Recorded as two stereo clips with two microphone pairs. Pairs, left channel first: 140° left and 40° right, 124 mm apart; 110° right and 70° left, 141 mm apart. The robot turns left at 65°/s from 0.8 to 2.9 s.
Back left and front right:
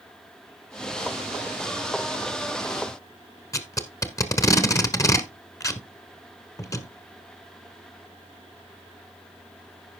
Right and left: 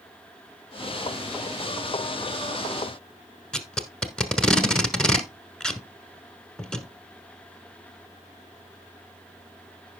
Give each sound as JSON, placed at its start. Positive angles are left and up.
{"t": 3.5, "sound": "tape being pulled", "azimuth_deg": 170, "distance_m": 1.1}